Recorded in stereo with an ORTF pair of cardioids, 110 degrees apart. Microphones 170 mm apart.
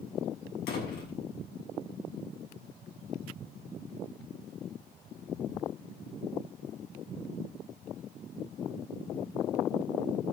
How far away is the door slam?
About 7.5 m.